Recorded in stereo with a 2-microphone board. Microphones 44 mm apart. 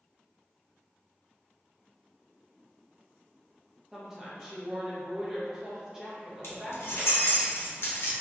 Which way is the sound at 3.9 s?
5° right (ahead or behind).